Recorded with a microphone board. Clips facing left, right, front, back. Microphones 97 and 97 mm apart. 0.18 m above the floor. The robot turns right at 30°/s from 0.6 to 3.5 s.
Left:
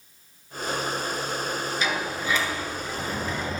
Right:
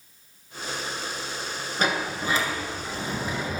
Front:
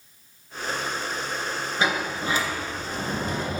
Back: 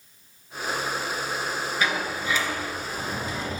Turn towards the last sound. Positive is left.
turn(degrees=-5)